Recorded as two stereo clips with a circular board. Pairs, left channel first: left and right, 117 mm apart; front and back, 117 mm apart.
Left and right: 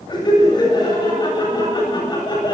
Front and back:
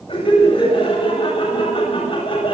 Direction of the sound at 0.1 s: 40° left.